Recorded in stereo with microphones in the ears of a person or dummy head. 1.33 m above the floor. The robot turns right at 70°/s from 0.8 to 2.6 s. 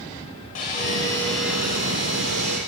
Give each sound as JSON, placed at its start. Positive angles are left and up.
{"t": 0.6, "sound": "sawing", "azimuth_deg": 140, "distance_m": 7.0}